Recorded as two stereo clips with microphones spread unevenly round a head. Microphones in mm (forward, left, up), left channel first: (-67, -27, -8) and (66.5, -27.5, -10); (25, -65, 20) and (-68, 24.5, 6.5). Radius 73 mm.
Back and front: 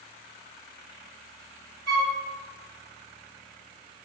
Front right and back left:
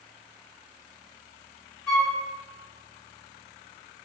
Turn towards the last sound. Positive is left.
turn(degrees=-15)